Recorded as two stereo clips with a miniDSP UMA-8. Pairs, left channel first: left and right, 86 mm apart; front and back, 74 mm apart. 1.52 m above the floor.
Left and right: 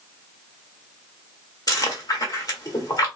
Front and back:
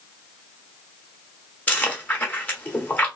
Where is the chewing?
65° left, 1.4 m.